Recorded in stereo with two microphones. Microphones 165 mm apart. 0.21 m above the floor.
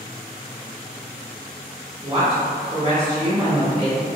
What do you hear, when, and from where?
2.0 s a woman speaking: 30° right (ahead or behind), 1.8 m